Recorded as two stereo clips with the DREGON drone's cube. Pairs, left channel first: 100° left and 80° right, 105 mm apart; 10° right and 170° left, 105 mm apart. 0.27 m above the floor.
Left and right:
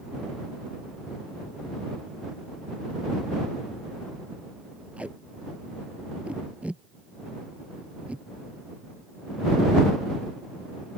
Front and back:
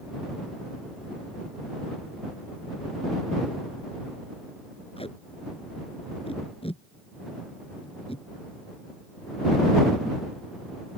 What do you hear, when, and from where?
5.0 s tape being pulled: straight ahead